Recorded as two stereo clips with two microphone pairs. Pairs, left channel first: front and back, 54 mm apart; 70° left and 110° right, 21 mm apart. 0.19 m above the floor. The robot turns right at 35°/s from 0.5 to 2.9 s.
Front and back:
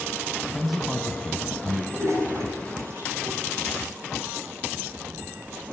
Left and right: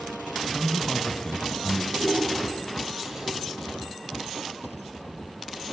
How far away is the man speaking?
About 1.1 m.